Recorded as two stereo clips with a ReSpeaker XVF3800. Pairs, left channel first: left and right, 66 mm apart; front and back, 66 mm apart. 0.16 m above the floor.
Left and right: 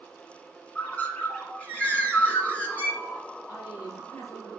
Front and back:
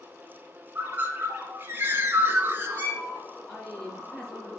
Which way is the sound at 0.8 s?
145° left.